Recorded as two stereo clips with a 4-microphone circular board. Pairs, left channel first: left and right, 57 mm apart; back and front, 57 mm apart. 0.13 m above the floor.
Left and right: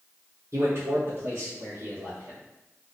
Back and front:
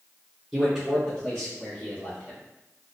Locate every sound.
0.5 s a man speaking: 80° right, 1.5 m; by 2.4 s 130° right, 2 m